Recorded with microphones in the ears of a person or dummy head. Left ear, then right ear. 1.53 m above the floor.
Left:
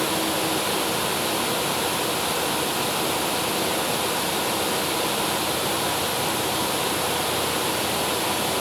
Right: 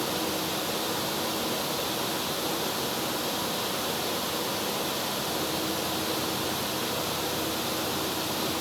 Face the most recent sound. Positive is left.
No sound to turn to.